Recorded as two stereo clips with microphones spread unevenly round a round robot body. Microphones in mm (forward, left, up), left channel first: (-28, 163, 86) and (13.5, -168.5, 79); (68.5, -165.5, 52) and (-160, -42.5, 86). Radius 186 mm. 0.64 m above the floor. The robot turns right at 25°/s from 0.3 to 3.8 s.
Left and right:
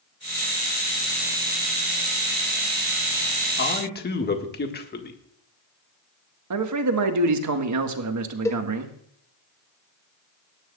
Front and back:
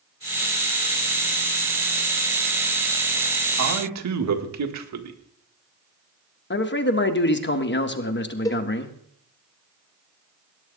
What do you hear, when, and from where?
3.6 s a man speaking: 150° left, 1.7 m; by 5.2 s 155° left, 1.7 m
6.5 s a man speaking: 60° right, 1.7 m
8.4 s a cowbell: 20° left, 1.2 m